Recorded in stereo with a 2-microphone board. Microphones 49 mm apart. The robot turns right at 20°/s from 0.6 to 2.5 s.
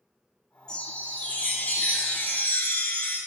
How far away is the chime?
About 0.5 m.